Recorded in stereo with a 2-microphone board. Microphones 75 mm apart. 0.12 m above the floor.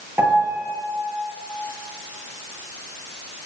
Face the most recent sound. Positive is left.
turn(degrees=-30)  # may be behind; listen again after turning